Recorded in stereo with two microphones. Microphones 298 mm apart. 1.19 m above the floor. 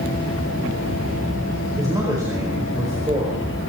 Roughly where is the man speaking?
Centre.